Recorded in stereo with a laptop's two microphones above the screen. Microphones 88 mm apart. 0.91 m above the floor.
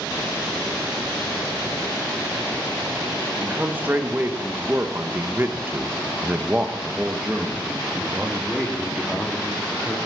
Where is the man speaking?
20° right (ahead or behind), 1.6 m; by 10.0 s centre (ahead or behind), 3 m.